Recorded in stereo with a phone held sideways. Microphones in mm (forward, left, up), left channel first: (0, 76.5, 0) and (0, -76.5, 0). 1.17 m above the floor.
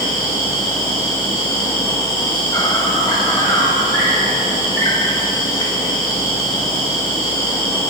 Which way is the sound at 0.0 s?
25° left (ahead or behind).